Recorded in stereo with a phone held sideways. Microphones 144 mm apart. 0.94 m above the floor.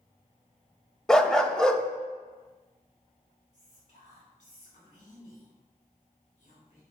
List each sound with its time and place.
1.1 s a dog barking: 5° left (ahead or behind), 0.5 m
3.5 s whispering: 50° left (ahead or behind), 3 m